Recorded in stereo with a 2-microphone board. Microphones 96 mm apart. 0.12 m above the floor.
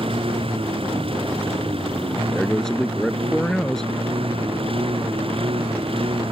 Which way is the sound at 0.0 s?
85° right.